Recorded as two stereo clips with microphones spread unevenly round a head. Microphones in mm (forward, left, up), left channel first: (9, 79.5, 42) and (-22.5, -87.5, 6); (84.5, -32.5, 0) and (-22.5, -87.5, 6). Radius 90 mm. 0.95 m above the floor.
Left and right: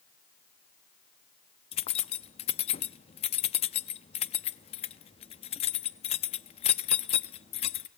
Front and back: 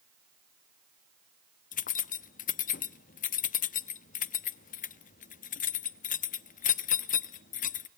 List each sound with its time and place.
1.7 s keys jangling: 25° left, 0.7 m